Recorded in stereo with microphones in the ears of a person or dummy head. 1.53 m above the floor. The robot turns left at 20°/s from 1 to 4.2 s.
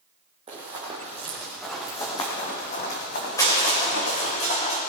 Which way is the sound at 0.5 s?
30° right (ahead or behind).